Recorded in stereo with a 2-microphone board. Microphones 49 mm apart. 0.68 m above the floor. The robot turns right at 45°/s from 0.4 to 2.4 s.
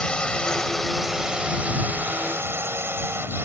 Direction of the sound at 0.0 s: 155° left.